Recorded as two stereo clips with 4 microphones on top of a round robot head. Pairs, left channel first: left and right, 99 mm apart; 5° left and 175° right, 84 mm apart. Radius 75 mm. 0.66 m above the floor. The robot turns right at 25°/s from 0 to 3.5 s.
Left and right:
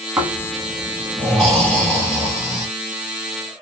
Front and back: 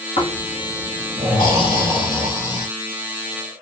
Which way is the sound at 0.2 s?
20° right.